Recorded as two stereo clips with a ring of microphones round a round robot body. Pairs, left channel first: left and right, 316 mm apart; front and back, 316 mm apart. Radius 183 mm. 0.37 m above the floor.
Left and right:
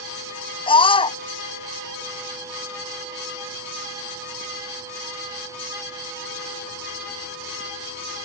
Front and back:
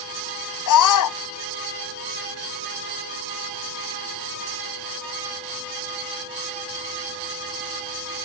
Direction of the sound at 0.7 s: 15° left.